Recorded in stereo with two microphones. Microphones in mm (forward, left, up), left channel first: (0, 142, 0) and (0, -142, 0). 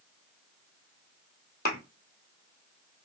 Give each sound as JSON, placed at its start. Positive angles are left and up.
{"t": 1.6, "sound": "a thud", "side_deg": 35, "distance_m": 1.2}